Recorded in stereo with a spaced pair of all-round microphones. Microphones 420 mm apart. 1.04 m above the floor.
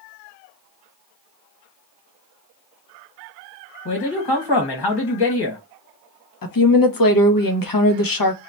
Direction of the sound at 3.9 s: 65° left (ahead or behind).